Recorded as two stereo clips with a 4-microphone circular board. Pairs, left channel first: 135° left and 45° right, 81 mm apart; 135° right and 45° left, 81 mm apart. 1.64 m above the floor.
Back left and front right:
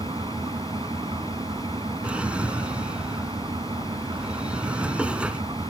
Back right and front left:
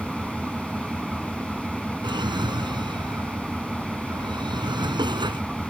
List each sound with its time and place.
0.0 s an engine running: 40° right
2.0 s a drawer: 30° left